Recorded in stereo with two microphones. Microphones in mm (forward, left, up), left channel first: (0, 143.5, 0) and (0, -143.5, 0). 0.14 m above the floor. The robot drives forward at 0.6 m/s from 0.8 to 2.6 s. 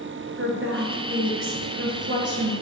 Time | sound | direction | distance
0.4 | a woman speaking | 50° right (ahead or behind) | 1.7 m